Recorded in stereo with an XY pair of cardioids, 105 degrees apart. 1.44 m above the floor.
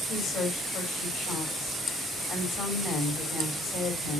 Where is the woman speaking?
65° left, 3.5 m.